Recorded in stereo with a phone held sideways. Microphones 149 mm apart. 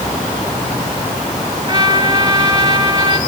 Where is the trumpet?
25° right (ahead or behind), 2.5 m.